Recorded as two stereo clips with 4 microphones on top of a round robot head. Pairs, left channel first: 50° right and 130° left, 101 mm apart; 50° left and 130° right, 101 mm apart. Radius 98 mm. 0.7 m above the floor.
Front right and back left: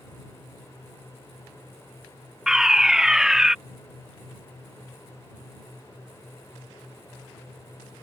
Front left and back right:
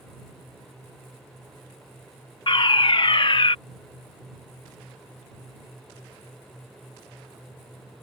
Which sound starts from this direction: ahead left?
A fire alarm, at 2.5 s.